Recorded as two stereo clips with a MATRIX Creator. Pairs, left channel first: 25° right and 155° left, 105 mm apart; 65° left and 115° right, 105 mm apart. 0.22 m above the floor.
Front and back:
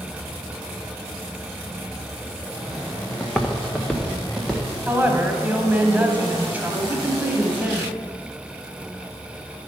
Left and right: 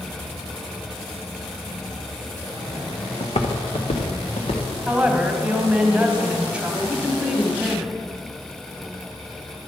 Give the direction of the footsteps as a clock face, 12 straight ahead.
10 o'clock.